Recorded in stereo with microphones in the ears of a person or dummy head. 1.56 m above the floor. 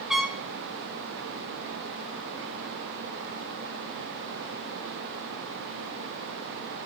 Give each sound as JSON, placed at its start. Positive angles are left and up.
{"t": 0.1, "sound": "a trumpet", "side_deg": 0, "distance_m": 0.8}